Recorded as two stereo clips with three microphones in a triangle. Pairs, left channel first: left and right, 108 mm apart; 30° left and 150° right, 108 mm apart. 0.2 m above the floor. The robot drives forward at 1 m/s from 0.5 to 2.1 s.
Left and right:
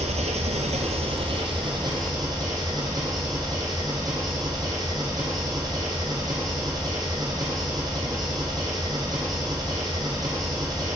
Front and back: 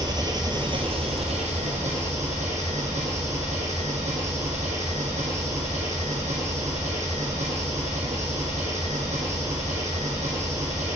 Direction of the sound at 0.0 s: 95° right.